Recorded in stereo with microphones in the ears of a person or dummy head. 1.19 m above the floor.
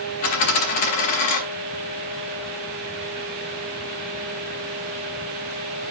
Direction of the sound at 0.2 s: 45° left (ahead or behind).